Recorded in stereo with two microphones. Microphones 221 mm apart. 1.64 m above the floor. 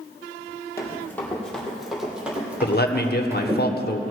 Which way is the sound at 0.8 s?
15° left (ahead or behind).